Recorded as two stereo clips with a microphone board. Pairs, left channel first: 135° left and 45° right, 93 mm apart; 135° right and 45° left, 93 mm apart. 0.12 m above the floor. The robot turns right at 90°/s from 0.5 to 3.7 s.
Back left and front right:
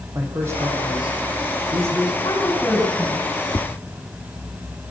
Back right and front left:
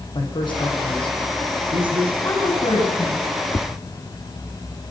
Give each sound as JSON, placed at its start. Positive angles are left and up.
{"t": 0.1, "sound": "a man speaking", "azimuth_deg": -105, "distance_m": 6.0}
{"t": 2.2, "sound": "a woman speaking", "azimuth_deg": 160, "distance_m": 8.0}
{"t": 3.5, "sound": "tapping", "azimuth_deg": 175, "distance_m": 1.4}